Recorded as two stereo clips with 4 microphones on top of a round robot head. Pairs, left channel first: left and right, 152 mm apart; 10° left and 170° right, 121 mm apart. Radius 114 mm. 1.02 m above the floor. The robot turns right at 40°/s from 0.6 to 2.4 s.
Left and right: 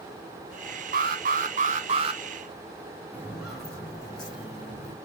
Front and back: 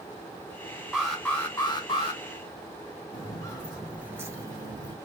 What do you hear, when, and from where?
0.9 s an alarm: 85° right, 2.5 m; by 2.2 s 35° right, 2.5 m
3.1 s footsteps: 15° right, 1.1 m; by 4.9 s 150° left, 1.6 m